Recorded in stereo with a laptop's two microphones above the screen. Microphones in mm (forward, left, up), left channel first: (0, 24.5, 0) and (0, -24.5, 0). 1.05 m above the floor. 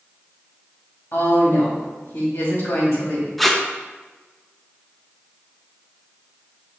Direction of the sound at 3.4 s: Centre (ahead or behind).